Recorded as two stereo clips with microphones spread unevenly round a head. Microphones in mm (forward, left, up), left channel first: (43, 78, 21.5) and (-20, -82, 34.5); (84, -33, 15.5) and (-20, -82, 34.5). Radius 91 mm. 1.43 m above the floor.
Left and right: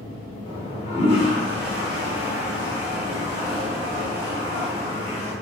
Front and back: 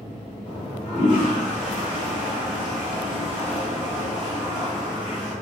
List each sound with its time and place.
0.5 s a toilet flushing: 35° left, 1.8 m